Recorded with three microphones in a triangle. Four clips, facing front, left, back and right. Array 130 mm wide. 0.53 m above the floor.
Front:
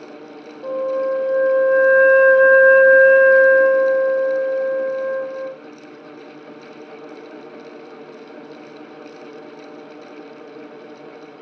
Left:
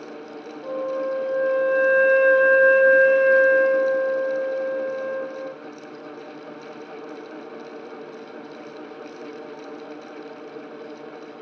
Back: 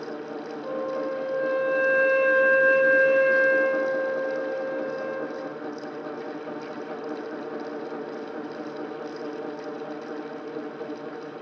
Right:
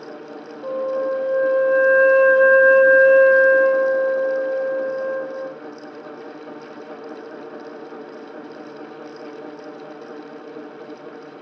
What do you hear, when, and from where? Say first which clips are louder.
0.6 s a flute: right 4 dB, front 9 dB; 40° right, 0.6 m